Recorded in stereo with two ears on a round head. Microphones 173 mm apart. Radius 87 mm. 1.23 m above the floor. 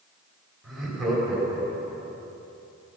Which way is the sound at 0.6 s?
Centre (ahead or behind).